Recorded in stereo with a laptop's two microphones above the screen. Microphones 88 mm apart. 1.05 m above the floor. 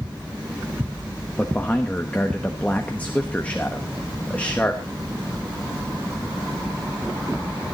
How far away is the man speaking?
About 1.1 m.